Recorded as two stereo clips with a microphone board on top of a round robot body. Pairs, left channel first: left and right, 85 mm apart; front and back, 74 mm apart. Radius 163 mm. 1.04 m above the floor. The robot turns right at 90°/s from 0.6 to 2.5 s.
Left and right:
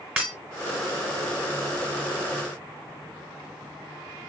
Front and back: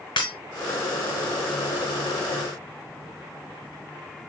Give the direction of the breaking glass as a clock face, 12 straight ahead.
12 o'clock.